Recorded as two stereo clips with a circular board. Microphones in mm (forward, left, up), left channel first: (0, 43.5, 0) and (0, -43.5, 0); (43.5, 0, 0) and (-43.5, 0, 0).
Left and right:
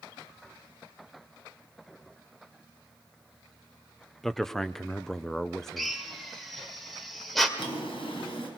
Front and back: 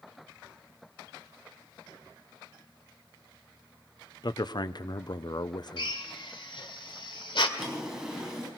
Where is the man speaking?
5° left, 0.8 m.